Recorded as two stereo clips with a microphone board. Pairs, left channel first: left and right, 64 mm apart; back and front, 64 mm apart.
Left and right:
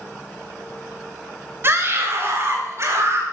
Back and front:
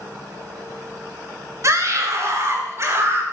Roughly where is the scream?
Ahead right.